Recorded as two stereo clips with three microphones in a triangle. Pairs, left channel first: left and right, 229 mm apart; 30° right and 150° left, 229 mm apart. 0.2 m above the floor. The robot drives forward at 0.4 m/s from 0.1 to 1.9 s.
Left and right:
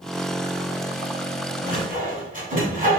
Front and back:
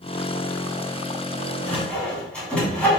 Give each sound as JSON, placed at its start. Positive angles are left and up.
{"t": 1.7, "sound": "sawing", "azimuth_deg": -105, "distance_m": 1.5}